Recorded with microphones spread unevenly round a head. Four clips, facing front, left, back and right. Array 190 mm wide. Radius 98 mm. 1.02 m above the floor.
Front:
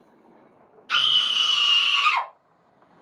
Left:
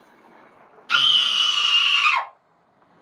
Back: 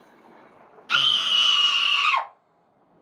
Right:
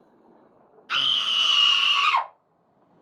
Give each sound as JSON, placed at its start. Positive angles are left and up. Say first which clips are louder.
{"t": 0.9, "sound": "a scream", "louder": "left 6 dB, back 1 dB", "azimuth_deg": 170, "distance_m": 0.8}